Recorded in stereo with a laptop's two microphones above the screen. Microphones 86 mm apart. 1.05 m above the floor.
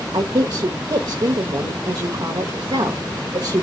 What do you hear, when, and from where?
0.1 s a woman speaking: 60° right (ahead or behind), 0.8 m